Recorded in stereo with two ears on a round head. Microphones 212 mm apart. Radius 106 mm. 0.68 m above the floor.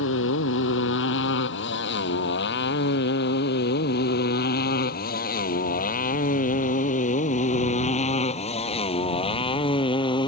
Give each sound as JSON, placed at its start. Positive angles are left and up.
{"t": 0.0, "sound": "a motorcycle", "side_deg": 55}